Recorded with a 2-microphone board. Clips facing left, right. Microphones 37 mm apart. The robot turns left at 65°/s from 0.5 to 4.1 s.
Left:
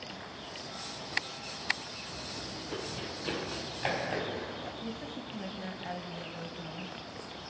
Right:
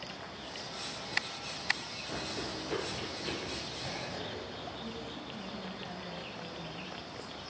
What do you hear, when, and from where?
2.1 s running footsteps: 70° right (ahead or behind), 1.5 m; by 4.7 s 75° left (ahead or behind), 4.5 m
4.8 s a woman speaking: 40° left (ahead or behind), 2.5 m